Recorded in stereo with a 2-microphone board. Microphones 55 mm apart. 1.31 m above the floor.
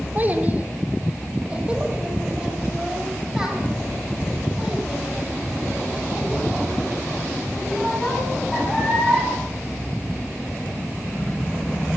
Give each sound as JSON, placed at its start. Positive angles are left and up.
{"t": 0.1, "sound": "a child speaking", "side_deg": -30, "distance_m": 3.5}